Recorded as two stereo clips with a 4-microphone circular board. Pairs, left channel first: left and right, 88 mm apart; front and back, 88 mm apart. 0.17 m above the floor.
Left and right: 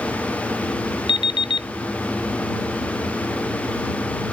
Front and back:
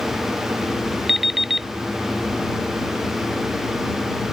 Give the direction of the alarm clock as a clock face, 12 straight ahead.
9 o'clock.